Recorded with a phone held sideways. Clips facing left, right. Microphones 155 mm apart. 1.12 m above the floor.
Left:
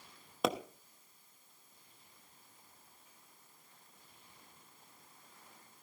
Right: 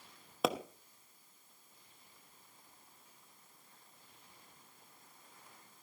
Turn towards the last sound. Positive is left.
turn(degrees=0)  # may be behind; listen again after turning